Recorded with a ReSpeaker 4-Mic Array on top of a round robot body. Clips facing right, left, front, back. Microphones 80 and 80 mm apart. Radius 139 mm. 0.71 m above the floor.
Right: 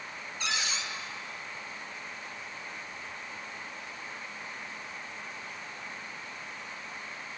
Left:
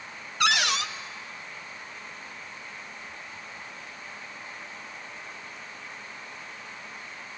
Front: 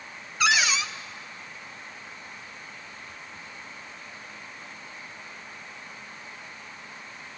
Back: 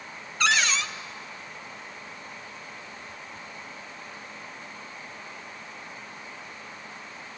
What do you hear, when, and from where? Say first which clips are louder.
0.4 s a cupboard door: left 10 dB, front 1 dB; 85° left, 0.9 m